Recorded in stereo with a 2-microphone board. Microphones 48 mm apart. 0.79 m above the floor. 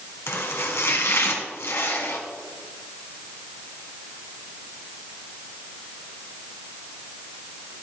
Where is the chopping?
70° left (ahead or behind), 2 m.